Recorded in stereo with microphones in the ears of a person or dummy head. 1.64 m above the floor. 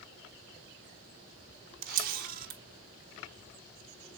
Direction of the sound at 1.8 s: 50° right (ahead or behind).